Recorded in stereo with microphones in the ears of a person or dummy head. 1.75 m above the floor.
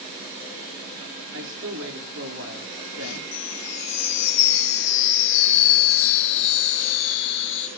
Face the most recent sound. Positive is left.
turn(degrees=65)  # may be behind; listen again after turning